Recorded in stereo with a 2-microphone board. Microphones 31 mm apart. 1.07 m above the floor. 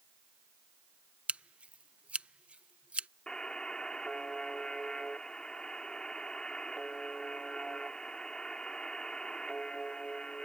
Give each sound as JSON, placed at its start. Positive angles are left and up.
{"t": 1.3, "sound": "scissors", "side_deg": -40}
{"t": 3.3, "sound": "a buzzer", "side_deg": 30}